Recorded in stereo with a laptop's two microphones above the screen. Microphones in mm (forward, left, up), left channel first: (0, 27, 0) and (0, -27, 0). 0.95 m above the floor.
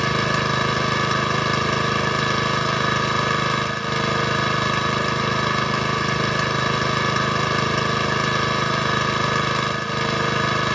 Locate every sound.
0.0 s an engine running: 5° left (ahead or behind)